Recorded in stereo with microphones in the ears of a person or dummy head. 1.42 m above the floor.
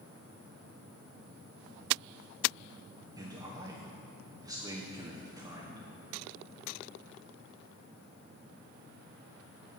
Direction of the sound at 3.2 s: 20° right (ahead or behind).